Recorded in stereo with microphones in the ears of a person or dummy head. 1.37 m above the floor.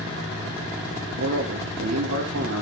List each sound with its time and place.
1.2 s a man speaking: 75° right (ahead or behind), 2.5 m